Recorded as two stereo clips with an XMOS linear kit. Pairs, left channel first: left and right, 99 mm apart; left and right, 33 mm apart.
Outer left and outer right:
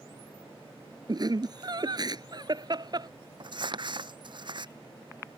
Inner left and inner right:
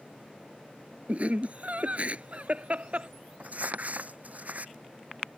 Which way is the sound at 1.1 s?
45° right (ahead or behind).